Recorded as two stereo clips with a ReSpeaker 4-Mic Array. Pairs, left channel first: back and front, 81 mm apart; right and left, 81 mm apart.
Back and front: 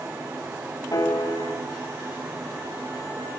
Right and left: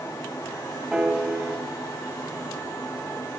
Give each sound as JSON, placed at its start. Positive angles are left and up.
{"t": 0.9, "sound": "a piano", "azimuth_deg": 170, "distance_m": 1.9}